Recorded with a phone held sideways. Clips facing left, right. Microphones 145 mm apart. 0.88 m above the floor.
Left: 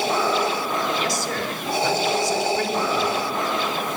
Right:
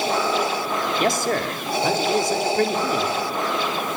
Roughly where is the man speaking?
Right.